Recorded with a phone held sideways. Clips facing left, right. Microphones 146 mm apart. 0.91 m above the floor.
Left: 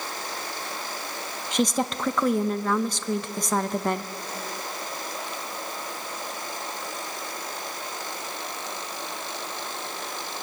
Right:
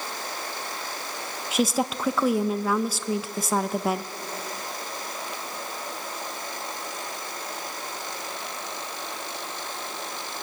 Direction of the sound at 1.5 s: 5° right (ahead or behind).